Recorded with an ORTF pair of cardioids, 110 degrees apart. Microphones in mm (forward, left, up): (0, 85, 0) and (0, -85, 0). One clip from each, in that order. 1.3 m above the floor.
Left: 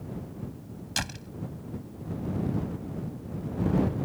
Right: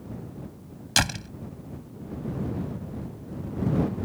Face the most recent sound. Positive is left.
turn(degrees=-50)